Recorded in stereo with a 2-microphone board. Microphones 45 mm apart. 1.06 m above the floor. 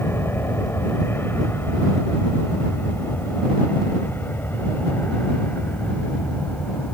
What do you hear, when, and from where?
0.0 s an aircraft: 60° left (ahead or behind); by 7.0 s 40° left (ahead or behind)